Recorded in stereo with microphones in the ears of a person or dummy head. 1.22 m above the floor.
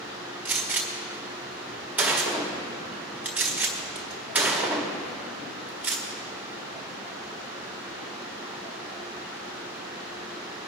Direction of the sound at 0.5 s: 5° right (ahead or behind).